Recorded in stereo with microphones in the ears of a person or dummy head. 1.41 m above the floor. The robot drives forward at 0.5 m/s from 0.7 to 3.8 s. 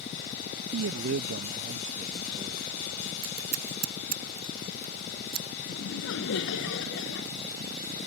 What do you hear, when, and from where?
0.7 s a man speaking: 75° right (ahead or behind); by 3.1 s 20° right (ahead or behind)
3.2 s scissors: 50° right (ahead or behind)
5.7 s laughter: 80° left